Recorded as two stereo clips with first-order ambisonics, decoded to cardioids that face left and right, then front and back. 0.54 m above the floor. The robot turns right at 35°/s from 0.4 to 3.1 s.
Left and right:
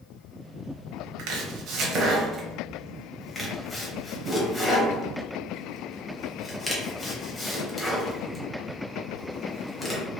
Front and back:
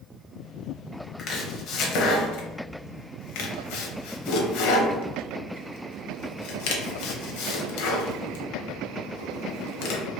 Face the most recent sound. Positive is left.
turn(degrees=5)